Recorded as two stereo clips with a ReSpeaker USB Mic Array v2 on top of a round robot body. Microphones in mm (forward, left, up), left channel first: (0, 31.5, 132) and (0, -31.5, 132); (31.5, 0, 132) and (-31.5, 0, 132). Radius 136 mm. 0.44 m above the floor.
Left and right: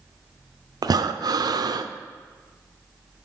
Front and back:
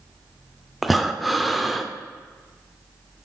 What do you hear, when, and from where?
0.8 s breathing: 90° right, 0.6 m